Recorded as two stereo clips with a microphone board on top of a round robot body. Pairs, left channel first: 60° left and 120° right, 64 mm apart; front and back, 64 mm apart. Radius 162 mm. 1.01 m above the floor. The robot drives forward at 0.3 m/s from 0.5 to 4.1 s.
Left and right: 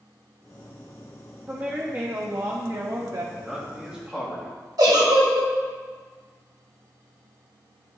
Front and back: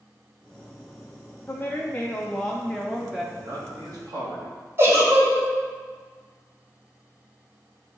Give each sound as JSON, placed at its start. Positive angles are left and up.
{"t": 1.5, "sound": "a woman speaking", "azimuth_deg": -60, "distance_m": 0.9}
{"t": 3.4, "sound": "a man speaking", "azimuth_deg": 165, "distance_m": 2.5}
{"t": 4.8, "sound": "a giggle", "azimuth_deg": -130, "distance_m": 1.7}